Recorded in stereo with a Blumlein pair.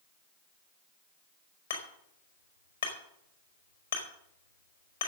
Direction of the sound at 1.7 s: 65° left.